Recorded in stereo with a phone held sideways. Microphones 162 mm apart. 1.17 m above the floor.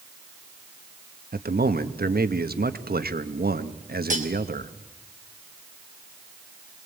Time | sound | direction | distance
1.3 | a man speaking | 70° right (ahead or behind) | 1.3 m
4.1 | cutlery clinking | 55° right (ahead or behind) | 3 m